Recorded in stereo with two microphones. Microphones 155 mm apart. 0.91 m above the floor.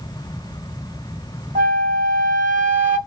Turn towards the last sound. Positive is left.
turn(degrees=-60)  # may be behind; listen again after turning